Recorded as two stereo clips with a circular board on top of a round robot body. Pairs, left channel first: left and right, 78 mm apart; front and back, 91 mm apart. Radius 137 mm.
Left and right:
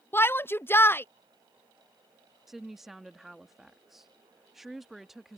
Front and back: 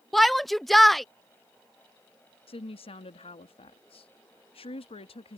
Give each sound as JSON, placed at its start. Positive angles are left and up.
{"t": 0.1, "sound": "a shout", "azimuth_deg": 85}
{"t": 2.5, "sound": "a woman speaking", "azimuth_deg": -5}